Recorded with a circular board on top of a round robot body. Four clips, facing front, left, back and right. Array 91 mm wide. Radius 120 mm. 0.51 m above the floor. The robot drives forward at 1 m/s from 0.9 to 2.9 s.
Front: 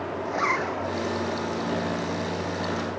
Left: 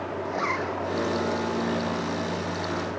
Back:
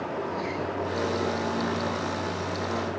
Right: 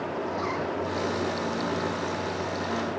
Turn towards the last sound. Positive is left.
turn(degrees=25)